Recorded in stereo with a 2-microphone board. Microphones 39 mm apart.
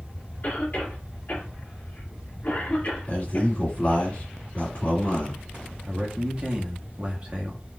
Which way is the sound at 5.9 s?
35° right (ahead or behind).